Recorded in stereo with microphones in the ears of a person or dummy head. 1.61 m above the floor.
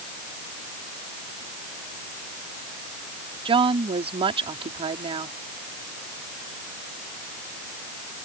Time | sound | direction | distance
3.5 | a woman speaking | 35° right (ahead or behind) | ?